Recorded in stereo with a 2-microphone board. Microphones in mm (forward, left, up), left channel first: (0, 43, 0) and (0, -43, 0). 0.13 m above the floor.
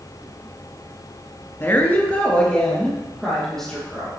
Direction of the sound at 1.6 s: 30° left (ahead or behind).